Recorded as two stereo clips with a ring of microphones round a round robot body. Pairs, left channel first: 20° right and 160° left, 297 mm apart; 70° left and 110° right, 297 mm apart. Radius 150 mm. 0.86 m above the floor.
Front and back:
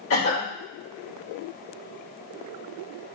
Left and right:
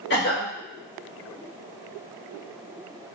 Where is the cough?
15° left, 1.8 m.